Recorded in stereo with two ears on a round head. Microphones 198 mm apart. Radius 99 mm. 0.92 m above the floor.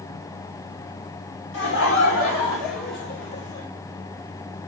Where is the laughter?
50° left (ahead or behind), 1.3 m; by 3.7 s 45° left (ahead or behind), 2 m.